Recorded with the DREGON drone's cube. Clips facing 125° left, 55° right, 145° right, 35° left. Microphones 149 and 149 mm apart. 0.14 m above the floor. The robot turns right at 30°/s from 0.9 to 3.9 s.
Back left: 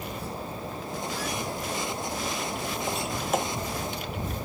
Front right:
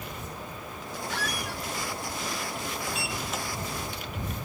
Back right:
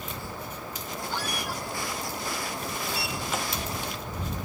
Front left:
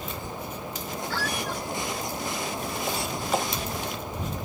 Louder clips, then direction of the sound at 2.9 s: Back left 5 dB, front left 6 dB; 75° left.